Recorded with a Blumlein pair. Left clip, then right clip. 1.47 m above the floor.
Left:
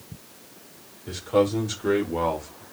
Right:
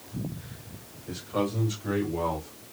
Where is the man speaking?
30° left, 6 m; by 2.6 s 50° left, 6.5 m.